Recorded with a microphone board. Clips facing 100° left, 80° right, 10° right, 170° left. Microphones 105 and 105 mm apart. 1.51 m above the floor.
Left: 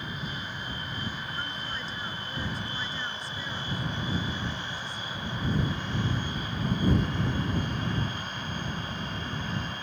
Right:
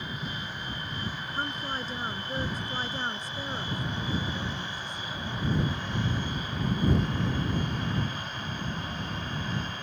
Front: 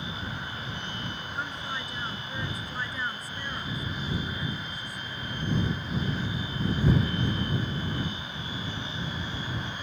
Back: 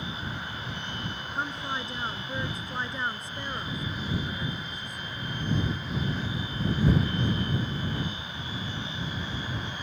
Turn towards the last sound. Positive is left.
turn(degrees=-125)